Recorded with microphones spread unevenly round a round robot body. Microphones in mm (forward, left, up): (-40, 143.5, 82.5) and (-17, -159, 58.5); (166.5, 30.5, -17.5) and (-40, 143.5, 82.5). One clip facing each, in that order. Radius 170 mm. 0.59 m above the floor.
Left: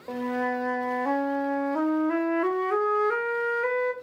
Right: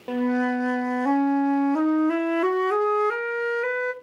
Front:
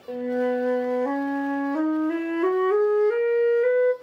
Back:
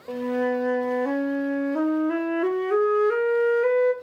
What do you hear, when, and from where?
0.1 s a flute: 105° right, 0.7 m